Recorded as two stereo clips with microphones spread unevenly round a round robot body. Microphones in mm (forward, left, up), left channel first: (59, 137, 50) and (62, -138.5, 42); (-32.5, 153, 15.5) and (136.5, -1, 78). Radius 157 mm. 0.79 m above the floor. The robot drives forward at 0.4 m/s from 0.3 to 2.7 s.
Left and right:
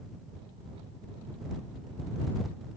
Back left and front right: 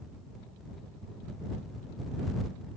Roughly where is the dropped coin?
I don't hear a dropped coin.